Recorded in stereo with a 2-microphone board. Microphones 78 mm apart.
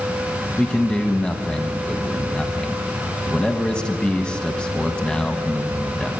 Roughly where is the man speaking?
Centre.